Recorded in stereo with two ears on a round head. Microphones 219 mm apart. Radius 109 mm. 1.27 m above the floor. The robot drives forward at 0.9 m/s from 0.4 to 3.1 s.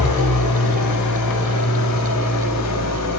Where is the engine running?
85° left, 6 m; by 3.2 s 75° left (ahead or behind), 6.5 m.